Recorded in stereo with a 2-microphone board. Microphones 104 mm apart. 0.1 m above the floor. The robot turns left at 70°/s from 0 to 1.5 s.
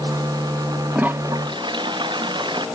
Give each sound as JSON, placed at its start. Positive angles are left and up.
{"t": 0.9, "sound": "a toilet flushing", "azimuth_deg": -10}